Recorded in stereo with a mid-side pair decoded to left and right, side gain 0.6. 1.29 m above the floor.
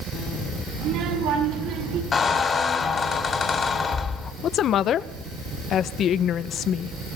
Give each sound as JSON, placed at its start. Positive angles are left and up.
{"t": 0.8, "sound": "a child speaking", "azimuth_deg": -70, "distance_m": 8.5}
{"t": 2.1, "sound": "a squeak", "azimuth_deg": 35, "distance_m": 2.5}
{"t": 4.4, "sound": "a woman speaking", "azimuth_deg": 50, "distance_m": 1.0}